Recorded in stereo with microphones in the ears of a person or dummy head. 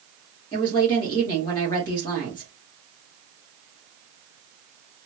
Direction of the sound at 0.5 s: 25° left (ahead or behind).